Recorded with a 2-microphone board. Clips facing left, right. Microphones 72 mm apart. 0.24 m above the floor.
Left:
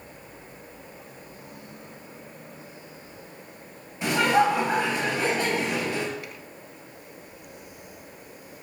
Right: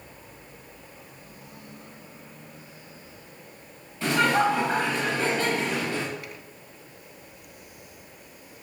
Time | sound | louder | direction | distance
4.0 | laughter | left 1 dB | 15° left (ahead or behind) | 1.2 m